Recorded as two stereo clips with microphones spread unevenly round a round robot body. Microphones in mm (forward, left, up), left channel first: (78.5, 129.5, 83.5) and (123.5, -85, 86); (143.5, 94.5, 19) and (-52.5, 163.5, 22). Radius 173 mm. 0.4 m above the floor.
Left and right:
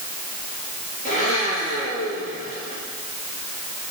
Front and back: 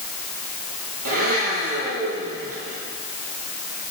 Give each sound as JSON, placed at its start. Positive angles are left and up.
{"t": 1.1, "sound": "a blender", "azimuth_deg": 165, "distance_m": 8.0}